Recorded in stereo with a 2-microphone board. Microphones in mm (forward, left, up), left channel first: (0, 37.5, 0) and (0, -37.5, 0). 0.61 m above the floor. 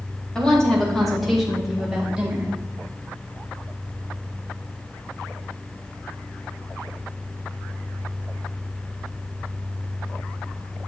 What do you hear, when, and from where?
0.3 s a woman speaking: 10° left (ahead or behind), 2.5 m; by 2.5 s 20° right (ahead or behind), 2 m